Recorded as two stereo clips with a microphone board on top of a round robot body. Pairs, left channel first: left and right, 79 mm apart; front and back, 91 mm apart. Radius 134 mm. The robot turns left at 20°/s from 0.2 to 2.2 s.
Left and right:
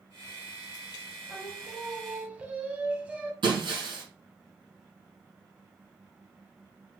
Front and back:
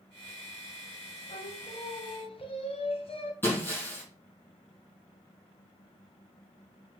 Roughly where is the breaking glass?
Ahead right.